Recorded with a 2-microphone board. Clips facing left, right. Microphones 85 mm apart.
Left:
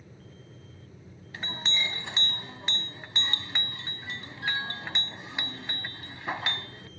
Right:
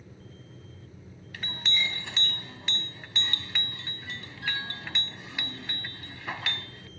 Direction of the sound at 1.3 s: 25° left (ahead or behind).